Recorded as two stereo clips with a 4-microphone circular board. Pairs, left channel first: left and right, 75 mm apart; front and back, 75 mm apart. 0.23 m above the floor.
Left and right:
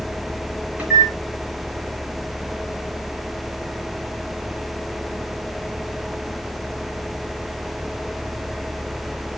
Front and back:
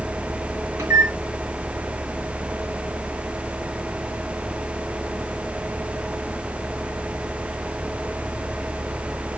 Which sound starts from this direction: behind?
A microwave, at 0.8 s.